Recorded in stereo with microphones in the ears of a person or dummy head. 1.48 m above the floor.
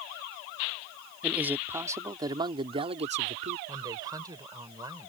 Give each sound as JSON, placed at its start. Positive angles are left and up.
{"t": 1.2, "sound": "a man speaking", "side_deg": -10}
{"t": 3.7, "sound": "a woman speaking", "side_deg": -20}